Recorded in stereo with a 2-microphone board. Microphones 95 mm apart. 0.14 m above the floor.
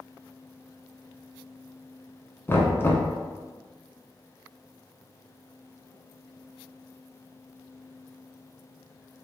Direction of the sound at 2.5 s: 25° left (ahead or behind).